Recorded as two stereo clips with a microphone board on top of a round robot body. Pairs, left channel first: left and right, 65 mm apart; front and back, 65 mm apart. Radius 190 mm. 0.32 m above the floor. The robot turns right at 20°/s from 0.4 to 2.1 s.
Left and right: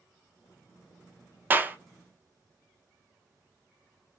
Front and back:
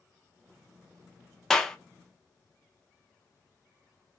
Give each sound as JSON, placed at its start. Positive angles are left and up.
{"t": 1.5, "sound": "a clap", "azimuth_deg": -75, "distance_m": 0.7}